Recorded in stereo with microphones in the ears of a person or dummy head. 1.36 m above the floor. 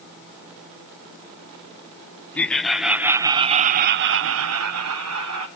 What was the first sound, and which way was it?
Laughter, 5° left (ahead or behind).